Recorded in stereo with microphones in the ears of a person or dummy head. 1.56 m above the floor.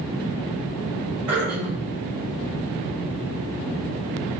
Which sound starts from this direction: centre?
Throat clearing, at 1.3 s.